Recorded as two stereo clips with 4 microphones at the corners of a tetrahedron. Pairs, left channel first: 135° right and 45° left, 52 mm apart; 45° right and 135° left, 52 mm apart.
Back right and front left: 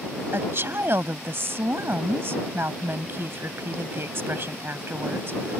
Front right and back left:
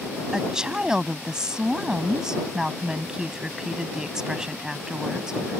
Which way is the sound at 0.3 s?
60° left.